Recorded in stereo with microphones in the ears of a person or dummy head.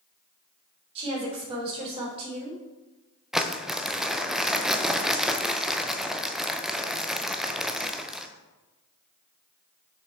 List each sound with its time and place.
0.9 s a woman speaking: 35° right (ahead or behind), 3.5 m
3.3 s crumpling: 5° right (ahead or behind), 0.6 m